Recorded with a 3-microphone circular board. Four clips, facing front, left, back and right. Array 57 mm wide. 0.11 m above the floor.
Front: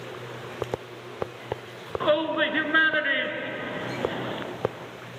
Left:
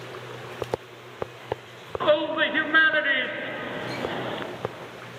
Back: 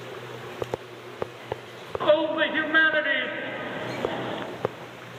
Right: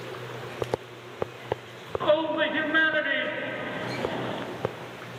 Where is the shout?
80° left, 1.1 m.